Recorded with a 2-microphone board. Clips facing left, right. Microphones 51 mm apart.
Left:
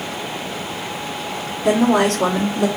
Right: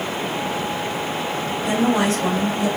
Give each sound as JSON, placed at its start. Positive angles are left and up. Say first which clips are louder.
{"t": 1.6, "sound": "a woman speaking", "louder": "left 4 dB", "side_deg": 75, "distance_m": 3.0}